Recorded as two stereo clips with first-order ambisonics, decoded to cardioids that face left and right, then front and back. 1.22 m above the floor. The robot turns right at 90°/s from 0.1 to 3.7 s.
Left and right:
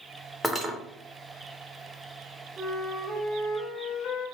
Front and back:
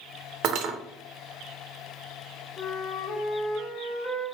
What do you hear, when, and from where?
0.4 s cutlery clinking: 175° right, 0.5 m; by 0.8 s 145° right, 0.5 m
2.6 s a flute: 60° right, 1.4 m; by 4.3 s 40° left, 1.4 m